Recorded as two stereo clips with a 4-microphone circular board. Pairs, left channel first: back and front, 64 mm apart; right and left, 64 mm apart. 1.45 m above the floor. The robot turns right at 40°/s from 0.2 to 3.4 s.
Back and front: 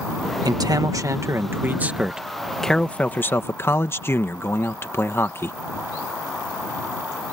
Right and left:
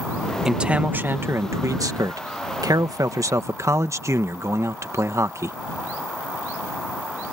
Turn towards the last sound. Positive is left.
turn(degrees=130)